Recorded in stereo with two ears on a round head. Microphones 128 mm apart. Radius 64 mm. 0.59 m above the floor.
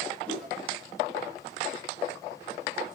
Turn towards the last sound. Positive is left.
turn(degrees=5)  # may be behind; listen again after turning